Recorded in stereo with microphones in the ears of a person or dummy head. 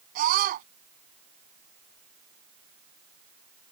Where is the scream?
50° right (ahead or behind).